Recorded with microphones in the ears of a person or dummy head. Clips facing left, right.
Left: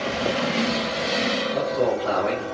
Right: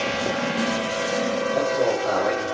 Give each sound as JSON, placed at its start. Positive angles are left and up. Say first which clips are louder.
{"t": 1.5, "sound": "a man speaking", "louder": "even", "side_deg": 25, "distance_m": 1.5}